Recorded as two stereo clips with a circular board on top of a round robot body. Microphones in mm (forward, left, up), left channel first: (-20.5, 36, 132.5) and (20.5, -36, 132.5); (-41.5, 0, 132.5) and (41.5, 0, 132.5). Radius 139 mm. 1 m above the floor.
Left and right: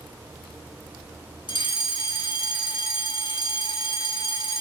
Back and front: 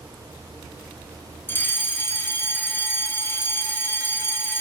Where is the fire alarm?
120° left, 3 m.